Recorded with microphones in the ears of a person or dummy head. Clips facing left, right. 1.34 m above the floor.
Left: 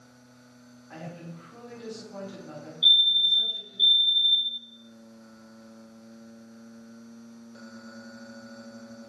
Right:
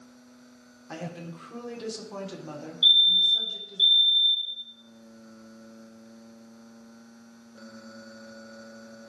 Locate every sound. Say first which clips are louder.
0.9 s a woman speaking: right 4 dB; 75° right (ahead or behind), 3.5 m
2.8 s a fire alarm: right 1 dB; 10° right (ahead or behind), 4 m